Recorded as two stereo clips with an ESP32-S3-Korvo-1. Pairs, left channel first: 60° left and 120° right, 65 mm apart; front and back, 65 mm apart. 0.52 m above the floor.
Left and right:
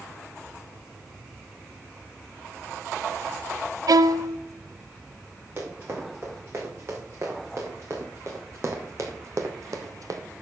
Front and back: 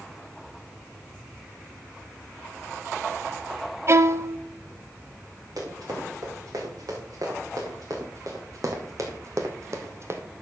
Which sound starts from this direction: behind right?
A violin, at 3.9 s.